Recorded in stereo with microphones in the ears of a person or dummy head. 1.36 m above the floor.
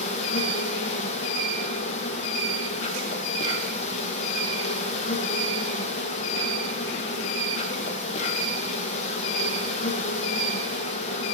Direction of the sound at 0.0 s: 40° left (ahead or behind).